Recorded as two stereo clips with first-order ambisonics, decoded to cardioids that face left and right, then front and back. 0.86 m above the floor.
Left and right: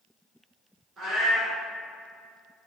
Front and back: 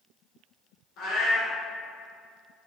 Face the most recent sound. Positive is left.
turn(degrees=-25)